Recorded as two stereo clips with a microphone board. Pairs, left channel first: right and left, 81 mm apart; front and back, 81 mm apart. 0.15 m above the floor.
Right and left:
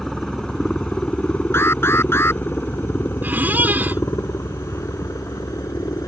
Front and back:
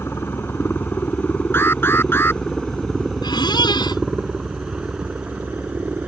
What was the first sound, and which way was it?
A helicopter, 5° right.